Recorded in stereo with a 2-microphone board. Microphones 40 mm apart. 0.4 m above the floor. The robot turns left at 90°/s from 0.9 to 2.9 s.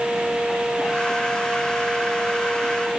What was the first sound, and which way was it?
Only background noise.